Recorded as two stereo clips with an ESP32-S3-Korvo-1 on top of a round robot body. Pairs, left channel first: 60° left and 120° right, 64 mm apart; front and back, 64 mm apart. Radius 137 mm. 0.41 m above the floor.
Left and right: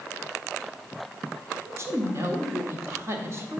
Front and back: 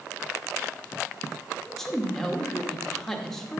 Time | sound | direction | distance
1.6 | a woman speaking | 85° right | 1.6 m